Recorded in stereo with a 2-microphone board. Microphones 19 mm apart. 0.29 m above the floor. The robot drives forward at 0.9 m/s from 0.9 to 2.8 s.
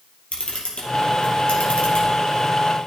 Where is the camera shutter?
80° left, 3 m; by 2.1 s 75° left (ahead or behind), 3 m.